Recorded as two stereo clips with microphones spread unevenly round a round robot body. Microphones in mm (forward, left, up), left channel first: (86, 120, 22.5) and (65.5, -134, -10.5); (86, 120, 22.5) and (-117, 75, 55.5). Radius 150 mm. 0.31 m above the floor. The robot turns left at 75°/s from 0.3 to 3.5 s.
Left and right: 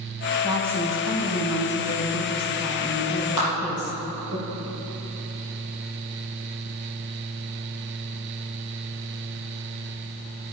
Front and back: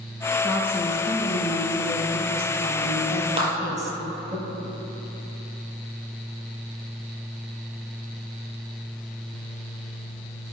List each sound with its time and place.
0.4 s a woman speaking: 15° right, 3 m; by 4.4 s 115° left, 3 m
3.4 s a clap: 135° left, 6 m; by 3.5 s 125° left, 6 m